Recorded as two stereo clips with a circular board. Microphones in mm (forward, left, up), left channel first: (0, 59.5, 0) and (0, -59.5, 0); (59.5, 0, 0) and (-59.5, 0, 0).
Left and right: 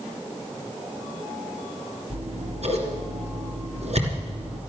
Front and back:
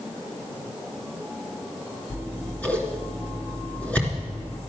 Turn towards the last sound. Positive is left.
turn(degrees=-80)